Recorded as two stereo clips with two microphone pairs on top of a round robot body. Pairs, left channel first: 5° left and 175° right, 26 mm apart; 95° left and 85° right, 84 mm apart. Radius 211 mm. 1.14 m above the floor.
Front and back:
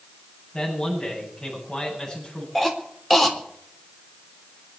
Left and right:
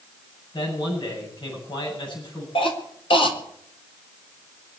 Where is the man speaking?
70° left, 9 m.